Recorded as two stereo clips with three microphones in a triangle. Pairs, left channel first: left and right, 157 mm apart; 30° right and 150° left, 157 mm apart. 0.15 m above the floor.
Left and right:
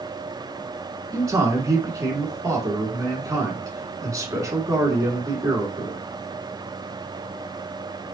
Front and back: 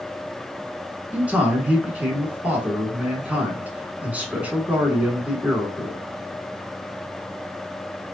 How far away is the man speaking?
About 1.2 m.